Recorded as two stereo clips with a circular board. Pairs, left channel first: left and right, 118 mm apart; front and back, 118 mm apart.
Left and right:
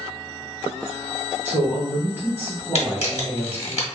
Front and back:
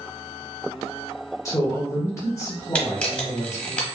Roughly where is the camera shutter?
Left.